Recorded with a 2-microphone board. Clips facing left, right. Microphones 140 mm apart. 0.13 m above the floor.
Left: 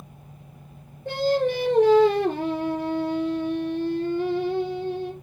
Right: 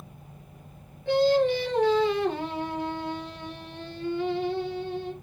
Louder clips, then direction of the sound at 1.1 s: Right 1 dB; 40° left (ahead or behind).